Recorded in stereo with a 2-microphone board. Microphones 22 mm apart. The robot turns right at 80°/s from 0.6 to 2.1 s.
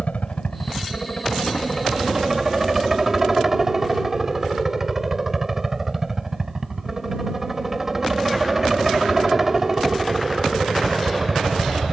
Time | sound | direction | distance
0.0 | a helicopter | 75° left | ?